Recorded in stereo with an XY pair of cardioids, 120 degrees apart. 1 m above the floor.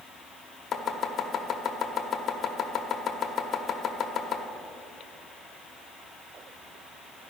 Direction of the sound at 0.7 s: 45° left.